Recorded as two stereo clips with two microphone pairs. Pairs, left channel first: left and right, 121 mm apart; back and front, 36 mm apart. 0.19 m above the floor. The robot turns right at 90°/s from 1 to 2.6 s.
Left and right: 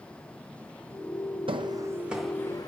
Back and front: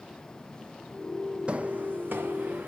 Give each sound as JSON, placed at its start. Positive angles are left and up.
{"t": 1.5, "sound": "footsteps", "azimuth_deg": -50, "distance_m": 0.5}